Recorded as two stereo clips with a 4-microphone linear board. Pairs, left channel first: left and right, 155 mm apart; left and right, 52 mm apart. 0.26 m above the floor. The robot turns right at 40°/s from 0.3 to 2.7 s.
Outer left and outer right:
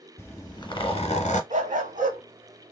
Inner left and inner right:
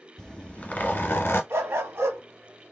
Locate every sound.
0.2 s a zipper: 20° left, 1.0 m; by 1.4 s 65° left, 1.0 m
1.5 s a dog barking: 55° right (ahead or behind), 0.7 m